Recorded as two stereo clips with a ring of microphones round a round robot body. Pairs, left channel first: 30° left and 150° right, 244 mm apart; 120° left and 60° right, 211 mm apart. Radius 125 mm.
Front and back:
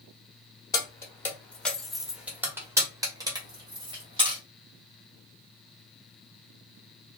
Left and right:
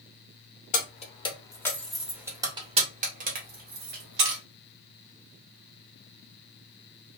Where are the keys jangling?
100° left, 1.0 m; by 4.4 s 80° right, 1.5 m.